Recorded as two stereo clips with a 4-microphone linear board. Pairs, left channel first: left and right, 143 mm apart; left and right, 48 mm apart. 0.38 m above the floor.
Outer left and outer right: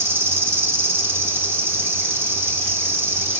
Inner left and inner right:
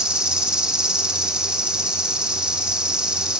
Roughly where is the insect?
Centre.